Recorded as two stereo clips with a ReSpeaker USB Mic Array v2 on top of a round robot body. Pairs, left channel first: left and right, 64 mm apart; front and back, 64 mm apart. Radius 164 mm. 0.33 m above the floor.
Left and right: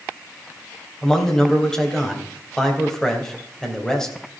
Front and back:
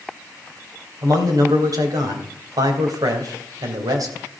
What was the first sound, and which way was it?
A man speaking, 170° left.